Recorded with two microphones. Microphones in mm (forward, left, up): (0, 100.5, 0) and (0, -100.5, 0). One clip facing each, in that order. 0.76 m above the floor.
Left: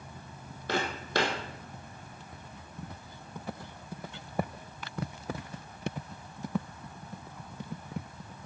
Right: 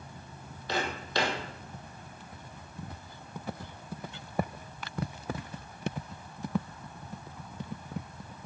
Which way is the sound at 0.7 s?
50° left (ahead or behind).